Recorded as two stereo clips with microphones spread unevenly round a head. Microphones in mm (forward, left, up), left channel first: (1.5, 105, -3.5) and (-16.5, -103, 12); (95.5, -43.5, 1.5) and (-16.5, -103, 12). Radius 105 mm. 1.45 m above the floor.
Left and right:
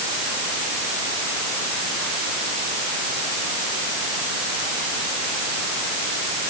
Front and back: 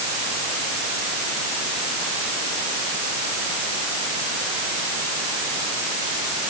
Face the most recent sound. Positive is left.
No sound to turn to.